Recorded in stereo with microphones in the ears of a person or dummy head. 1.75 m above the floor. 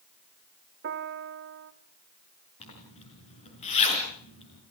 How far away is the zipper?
About 5 m.